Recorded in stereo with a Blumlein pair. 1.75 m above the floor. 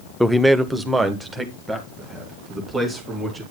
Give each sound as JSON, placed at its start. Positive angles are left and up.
{"t": 0.2, "sound": "a man speaking", "azimuth_deg": 0, "distance_m": 0.6}